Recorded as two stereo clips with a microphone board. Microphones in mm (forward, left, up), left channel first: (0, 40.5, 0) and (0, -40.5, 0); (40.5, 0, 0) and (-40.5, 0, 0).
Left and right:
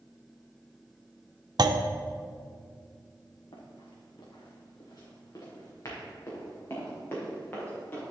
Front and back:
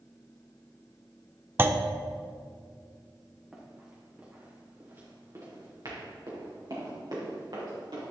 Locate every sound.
1.6 s a clunk: 115° right, 0.5 m
3.5 s running footsteps: 100° left, 2.5 m; by 8.0 s 160° left, 5.5 m